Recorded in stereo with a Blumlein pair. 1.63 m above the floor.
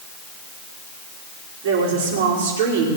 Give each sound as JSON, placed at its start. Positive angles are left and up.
{"t": 1.6, "sound": "a woman speaking", "azimuth_deg": -50, "distance_m": 5.0}